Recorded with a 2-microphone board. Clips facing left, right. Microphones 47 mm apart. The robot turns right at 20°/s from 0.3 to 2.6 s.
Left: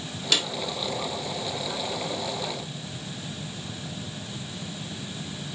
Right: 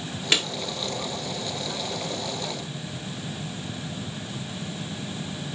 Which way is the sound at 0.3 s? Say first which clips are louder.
Right 2 dB; 35° right (ahead or behind).